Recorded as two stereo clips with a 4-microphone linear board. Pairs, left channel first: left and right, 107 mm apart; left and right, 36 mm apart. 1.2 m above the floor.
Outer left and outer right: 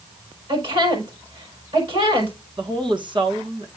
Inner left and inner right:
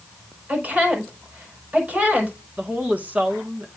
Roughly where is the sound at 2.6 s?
Right.